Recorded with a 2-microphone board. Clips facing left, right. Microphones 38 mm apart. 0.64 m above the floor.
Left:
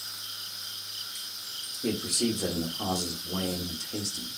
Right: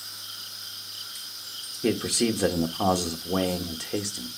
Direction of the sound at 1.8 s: 55° right (ahead or behind).